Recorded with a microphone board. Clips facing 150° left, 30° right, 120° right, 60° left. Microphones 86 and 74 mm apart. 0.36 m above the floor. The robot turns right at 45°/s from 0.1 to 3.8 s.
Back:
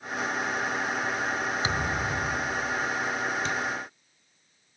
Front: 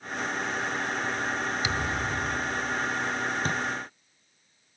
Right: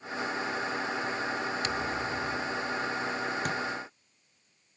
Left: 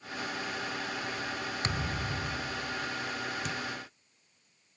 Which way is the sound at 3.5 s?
80° right.